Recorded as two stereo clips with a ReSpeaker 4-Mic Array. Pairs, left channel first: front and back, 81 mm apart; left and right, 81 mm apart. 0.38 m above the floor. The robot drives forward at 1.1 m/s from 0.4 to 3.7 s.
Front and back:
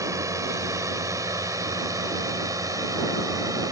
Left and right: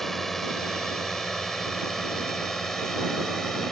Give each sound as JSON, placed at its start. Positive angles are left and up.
{"t": 0.0, "sound": "a drone", "azimuth_deg": 175}